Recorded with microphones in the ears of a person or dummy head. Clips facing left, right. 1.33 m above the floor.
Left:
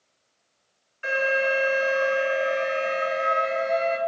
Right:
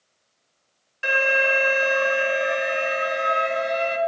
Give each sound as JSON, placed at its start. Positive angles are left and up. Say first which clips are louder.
{"t": 1.0, "sound": "an alarm", "louder": "right 1 dB", "side_deg": -70, "distance_m": 1.6}